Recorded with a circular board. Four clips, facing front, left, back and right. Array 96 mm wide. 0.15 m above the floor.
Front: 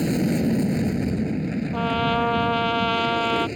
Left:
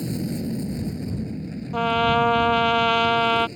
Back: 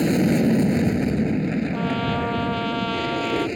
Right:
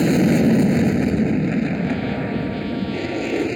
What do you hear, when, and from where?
0.0 s an aircraft: 110° right
1.7 s a trumpet: 70° left